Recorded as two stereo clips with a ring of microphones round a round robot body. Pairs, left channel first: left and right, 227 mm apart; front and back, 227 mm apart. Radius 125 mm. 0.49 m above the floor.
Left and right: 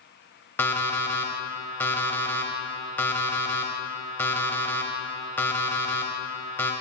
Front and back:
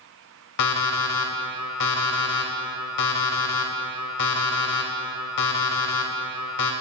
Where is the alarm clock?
10° left, 0.8 m.